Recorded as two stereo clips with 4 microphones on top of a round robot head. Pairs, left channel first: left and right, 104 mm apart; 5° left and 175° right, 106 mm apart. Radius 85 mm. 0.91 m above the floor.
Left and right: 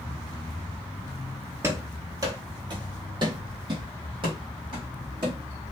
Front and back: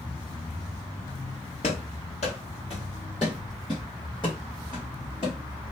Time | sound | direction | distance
1.6 | running footsteps | 35° right | 1.3 m